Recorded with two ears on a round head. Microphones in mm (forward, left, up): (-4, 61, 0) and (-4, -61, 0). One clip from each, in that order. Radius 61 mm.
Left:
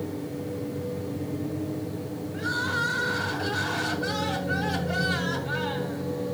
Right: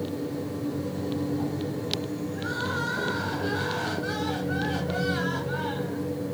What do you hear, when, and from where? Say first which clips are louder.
2.3 s crying: left 4 dB; 40° left (ahead or behind), 5.5 m